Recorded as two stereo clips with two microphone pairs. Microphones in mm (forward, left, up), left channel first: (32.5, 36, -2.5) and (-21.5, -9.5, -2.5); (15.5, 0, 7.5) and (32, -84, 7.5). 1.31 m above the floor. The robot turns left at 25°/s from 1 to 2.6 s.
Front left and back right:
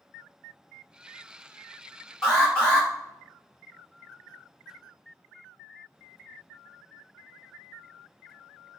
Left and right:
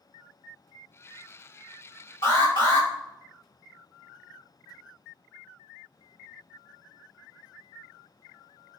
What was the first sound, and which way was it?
An alarm, 125° left.